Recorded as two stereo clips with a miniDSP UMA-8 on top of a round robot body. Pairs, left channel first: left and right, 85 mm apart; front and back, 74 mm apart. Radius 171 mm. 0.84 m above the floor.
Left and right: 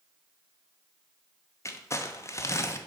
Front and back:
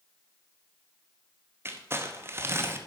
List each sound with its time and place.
1.6 s crumpling: 135° left, 1.2 m